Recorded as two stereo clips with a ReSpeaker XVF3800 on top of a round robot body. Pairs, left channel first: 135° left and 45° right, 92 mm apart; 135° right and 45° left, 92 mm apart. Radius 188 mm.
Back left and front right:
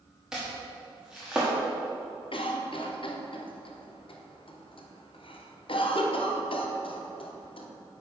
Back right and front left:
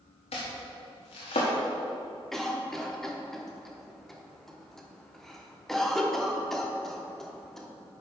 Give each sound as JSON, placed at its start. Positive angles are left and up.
{"t": 0.3, "sound": "chopping", "azimuth_deg": -130, "distance_m": 0.9}
{"t": 2.3, "sound": "a cough", "azimuth_deg": 140, "distance_m": 1.4}